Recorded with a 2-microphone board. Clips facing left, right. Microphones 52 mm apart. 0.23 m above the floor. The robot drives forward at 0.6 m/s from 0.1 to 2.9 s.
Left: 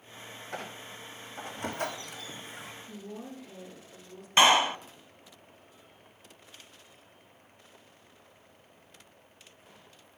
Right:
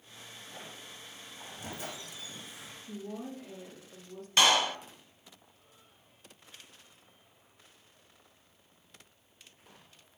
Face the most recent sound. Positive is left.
turn(degrees=25)  # may be behind; listen again after turning